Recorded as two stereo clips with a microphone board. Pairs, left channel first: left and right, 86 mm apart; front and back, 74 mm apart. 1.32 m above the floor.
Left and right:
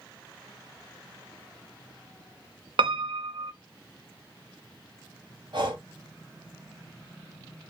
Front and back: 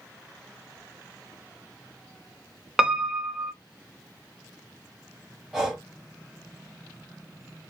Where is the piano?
95° right, 0.5 m.